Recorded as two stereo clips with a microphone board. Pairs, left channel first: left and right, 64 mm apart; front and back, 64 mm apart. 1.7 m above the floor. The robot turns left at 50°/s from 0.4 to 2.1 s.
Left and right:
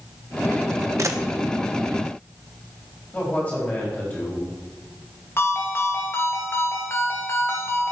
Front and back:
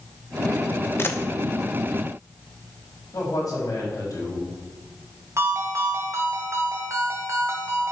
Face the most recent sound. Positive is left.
turn(degrees=140)